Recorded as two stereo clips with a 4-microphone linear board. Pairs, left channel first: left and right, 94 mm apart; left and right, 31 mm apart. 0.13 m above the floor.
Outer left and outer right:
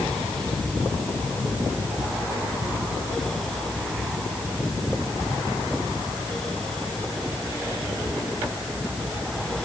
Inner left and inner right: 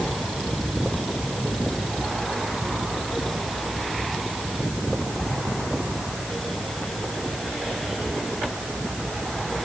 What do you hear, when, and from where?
Only background noise.